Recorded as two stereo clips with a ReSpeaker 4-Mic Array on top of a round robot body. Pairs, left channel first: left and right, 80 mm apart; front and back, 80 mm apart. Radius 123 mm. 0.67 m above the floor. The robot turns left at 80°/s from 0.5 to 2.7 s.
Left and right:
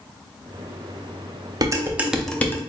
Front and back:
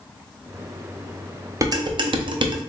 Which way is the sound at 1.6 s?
130° right.